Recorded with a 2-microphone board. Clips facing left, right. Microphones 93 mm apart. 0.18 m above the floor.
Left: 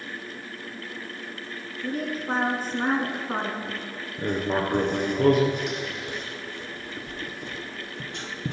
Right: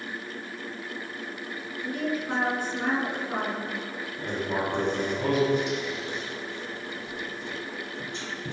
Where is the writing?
60° left (ahead or behind), 1.4 m.